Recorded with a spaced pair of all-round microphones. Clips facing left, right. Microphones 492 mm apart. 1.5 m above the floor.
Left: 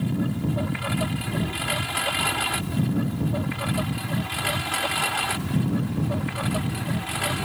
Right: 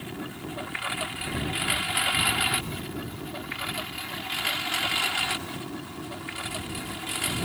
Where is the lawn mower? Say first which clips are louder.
Left 10 dB; 60° left (ahead or behind); by 7.5 s 75° left (ahead or behind).